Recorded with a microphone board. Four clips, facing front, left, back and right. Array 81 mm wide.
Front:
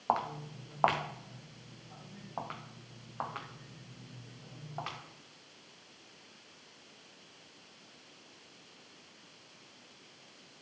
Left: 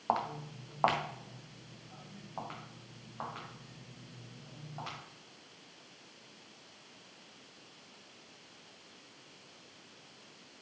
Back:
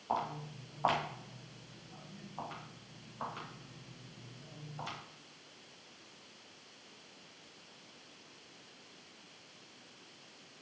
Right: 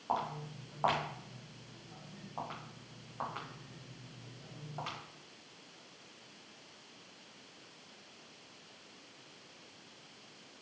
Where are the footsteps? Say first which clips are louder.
Left 3 dB, front 4 dB; 30° left, 1.8 m; by 5.0 s 5° right, 4 m.